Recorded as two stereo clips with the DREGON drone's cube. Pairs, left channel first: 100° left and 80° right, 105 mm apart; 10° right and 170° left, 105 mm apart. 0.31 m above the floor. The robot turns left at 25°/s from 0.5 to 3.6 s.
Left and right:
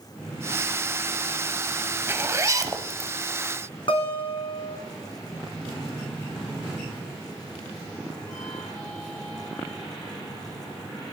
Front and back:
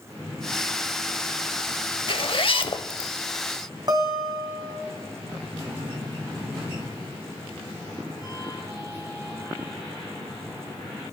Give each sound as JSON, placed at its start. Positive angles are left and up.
{"t": 2.1, "sound": "a zipper", "azimuth_deg": -15, "distance_m": 0.7}
{"t": 3.9, "sound": "a guitar", "azimuth_deg": 125, "distance_m": 2.5}